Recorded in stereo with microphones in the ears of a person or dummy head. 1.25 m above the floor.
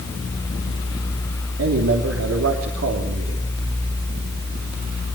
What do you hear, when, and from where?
1.6 s a man speaking: 75° right (ahead or behind), 3 m